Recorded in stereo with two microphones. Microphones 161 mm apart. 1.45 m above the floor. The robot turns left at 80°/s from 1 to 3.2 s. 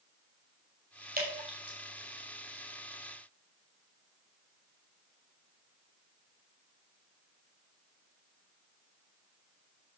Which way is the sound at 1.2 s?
65° right (ahead or behind).